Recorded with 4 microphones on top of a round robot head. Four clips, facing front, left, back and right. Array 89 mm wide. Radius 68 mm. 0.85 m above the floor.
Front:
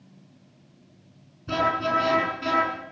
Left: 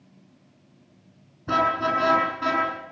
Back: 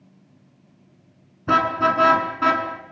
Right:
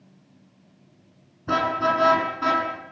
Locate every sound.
1.5 s a car horn: 175° right, 6.5 m; by 2.7 s 170° right, 6 m